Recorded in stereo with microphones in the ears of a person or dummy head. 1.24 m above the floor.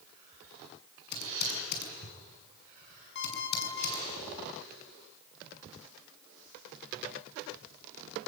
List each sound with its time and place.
1.1 s typing on a keyboard: 55° left (ahead or behind), 6.5 m
3.1 s an alarm clock: 65° left (ahead or behind), 6.5 m